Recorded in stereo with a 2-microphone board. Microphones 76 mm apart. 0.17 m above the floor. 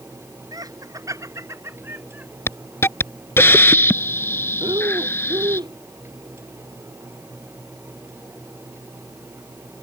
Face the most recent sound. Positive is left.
turn(degrees=-75)  # may be behind; listen again after turning